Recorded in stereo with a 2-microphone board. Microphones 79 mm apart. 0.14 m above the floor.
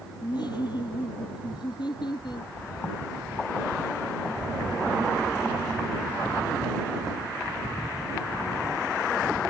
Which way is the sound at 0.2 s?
65° left (ahead or behind).